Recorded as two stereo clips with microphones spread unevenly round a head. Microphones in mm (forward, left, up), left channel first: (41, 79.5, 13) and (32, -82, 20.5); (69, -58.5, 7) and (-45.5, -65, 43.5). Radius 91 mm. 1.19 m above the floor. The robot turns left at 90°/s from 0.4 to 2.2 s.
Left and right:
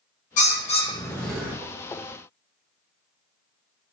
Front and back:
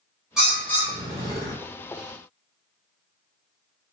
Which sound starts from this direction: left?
A bird, at 0.4 s.